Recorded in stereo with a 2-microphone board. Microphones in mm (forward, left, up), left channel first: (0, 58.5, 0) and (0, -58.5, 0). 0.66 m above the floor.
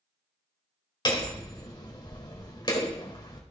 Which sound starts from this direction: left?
Hammering, at 1.1 s.